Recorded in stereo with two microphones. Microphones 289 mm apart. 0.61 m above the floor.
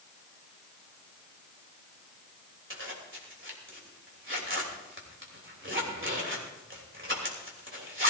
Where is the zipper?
45° right (ahead or behind), 3 m.